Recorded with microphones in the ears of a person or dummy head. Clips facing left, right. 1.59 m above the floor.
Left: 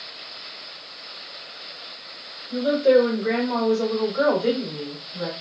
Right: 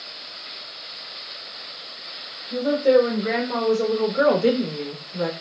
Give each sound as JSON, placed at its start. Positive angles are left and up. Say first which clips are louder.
{"t": 2.5, "sound": "a woman speaking", "louder": "even", "side_deg": 10, "distance_m": 1.3}